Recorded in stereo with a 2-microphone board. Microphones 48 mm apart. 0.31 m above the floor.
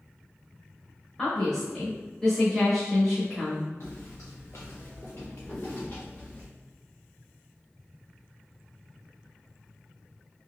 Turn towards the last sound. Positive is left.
turn(degrees=25)  # may be behind; listen again after turning